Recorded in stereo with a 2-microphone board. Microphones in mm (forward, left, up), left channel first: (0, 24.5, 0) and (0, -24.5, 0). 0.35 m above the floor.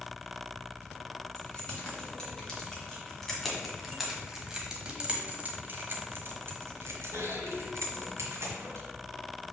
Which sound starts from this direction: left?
Keys jangling, at 1.4 s.